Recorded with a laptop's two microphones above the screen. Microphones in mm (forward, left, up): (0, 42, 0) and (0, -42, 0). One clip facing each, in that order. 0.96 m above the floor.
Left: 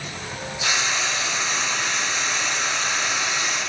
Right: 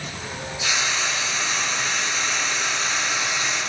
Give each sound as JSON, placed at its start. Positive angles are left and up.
{"t": 0.6, "sound": "frying", "side_deg": 65, "distance_m": 1.4}